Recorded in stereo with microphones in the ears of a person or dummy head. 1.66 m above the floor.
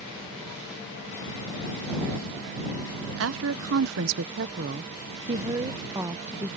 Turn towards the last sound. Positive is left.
turn(degrees=-10)  # may be behind; listen again after turning